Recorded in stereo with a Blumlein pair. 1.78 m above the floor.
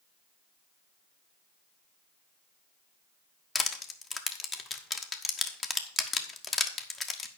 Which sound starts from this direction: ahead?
Crushing, at 3.5 s.